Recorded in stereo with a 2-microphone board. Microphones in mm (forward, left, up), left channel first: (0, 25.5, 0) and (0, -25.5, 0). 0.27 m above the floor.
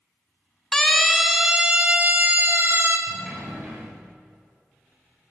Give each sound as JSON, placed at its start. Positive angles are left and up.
{"t": 0.7, "sound": "a siren", "side_deg": 10, "distance_m": 2.5}
{"t": 3.1, "sound": "a sliding door", "side_deg": -10, "distance_m": 8.5}